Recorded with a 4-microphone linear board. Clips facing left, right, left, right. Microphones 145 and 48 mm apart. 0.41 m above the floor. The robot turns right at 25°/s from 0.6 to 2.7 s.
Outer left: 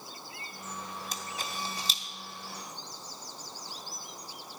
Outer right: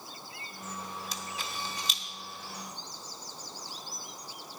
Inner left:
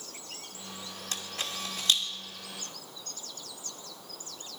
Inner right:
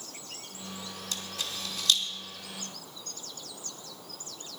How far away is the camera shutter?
About 1.2 m.